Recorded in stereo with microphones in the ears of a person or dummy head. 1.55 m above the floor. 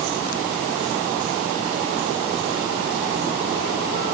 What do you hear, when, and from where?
Only background noise.